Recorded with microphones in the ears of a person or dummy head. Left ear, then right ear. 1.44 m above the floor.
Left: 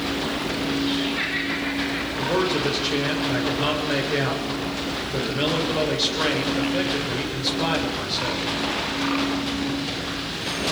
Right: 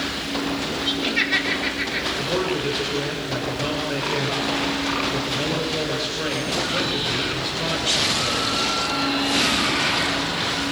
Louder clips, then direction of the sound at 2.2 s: Left 1 dB; 20° left (ahead or behind).